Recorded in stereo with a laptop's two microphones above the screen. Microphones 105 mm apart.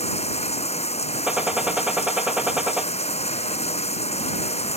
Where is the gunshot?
10° right (ahead or behind).